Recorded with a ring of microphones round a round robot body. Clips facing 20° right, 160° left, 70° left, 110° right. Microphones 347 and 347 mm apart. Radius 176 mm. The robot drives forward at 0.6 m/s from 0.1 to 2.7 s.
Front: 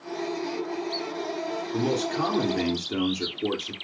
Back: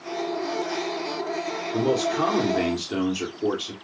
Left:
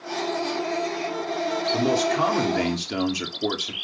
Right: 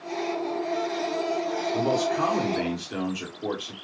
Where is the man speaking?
45° left, 2.5 m; by 3.7 s 60° left, 1.9 m.